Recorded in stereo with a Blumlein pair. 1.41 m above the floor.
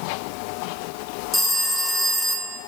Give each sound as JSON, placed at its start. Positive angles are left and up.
{"t": 1.3, "sound": "a phone ringing", "azimuth_deg": 10, "distance_m": 1.0}